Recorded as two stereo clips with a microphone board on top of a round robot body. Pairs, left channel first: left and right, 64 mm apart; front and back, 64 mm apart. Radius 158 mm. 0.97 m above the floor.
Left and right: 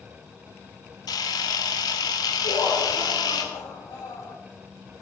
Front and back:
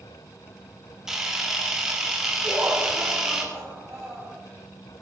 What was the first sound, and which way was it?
A camera shutter, 95° left.